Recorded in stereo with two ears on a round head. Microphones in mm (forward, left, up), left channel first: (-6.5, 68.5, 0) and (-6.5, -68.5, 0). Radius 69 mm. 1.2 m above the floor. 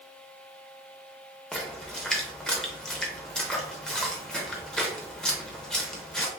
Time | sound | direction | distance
1.5 | a splash | 5° left (ahead or behind) | 0.6 m